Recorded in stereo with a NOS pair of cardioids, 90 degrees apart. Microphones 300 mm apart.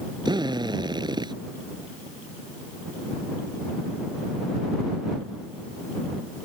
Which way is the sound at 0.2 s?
15° right.